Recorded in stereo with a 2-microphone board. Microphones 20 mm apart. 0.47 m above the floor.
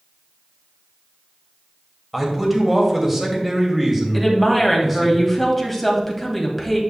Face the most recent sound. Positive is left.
turn(degrees=5)  # may be behind; listen again after turning